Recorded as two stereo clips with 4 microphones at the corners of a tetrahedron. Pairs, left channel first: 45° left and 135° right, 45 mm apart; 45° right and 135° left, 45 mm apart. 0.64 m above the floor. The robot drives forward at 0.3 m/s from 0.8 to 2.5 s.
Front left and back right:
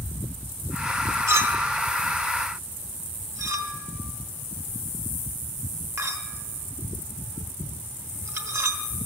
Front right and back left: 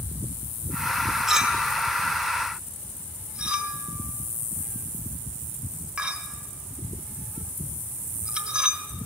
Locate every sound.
1.3 s a clink: 145° right, 0.8 m; by 8.8 s 160° right, 1.1 m